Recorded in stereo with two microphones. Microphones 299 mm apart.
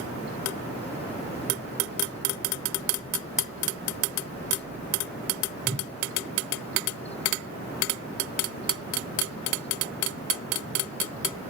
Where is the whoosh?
35° right (ahead or behind), 1.9 m.